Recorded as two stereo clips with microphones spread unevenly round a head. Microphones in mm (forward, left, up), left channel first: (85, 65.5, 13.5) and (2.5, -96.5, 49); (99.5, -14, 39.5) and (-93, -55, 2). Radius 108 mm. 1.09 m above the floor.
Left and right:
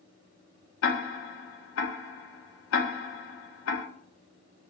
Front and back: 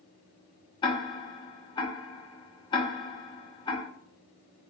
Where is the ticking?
70° left, 0.6 m.